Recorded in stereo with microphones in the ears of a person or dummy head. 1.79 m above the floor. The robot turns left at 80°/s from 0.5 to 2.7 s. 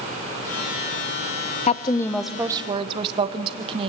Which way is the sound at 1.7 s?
45° left.